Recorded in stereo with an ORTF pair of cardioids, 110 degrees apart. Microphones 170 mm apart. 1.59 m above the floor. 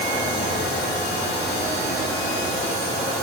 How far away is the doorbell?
I don't hear a doorbell.